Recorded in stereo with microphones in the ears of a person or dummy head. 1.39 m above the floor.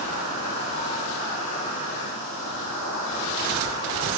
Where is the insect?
70° left (ahead or behind), 3 m.